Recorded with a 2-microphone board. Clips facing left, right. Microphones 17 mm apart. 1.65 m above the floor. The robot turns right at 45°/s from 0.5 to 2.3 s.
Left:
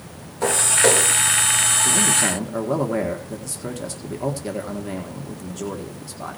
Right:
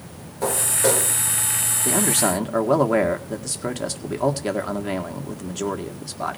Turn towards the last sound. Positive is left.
turn(degrees=-30)  # may be behind; listen again after turning